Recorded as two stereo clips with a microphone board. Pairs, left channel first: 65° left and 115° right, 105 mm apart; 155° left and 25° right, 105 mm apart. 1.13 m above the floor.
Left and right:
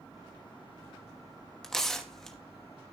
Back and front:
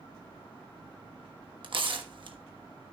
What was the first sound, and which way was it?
Tearing paper, 15° right.